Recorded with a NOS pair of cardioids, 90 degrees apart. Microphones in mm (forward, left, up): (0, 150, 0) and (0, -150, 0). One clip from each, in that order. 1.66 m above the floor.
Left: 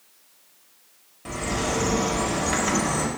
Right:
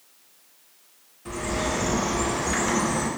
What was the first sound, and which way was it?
A bird, 65° left.